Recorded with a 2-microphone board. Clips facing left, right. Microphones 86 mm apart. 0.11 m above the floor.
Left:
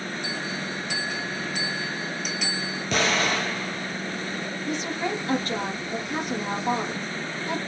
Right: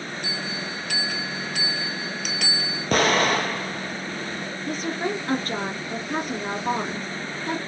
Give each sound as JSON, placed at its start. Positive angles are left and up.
{"t": 0.2, "sound": "a bell", "side_deg": -60, "distance_m": 0.7}
{"t": 2.9, "sound": "an explosion", "side_deg": -45, "distance_m": 0.6}
{"t": 4.7, "sound": "a woman speaking", "side_deg": -40, "distance_m": 1.4}